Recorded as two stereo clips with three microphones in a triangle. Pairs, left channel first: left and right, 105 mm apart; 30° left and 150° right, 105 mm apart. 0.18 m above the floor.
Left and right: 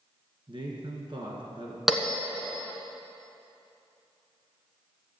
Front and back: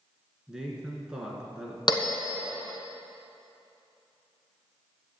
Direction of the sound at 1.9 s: Straight ahead.